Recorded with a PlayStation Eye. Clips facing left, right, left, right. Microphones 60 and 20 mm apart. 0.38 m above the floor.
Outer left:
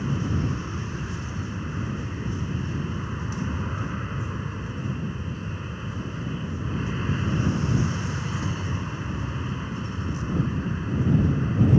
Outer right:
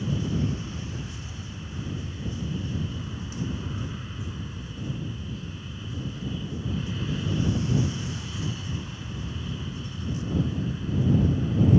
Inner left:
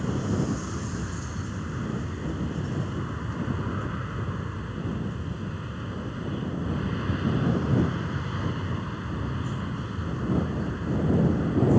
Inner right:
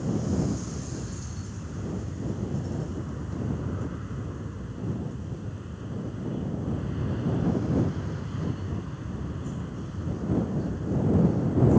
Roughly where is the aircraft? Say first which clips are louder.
Outer left 1 dB, even; left.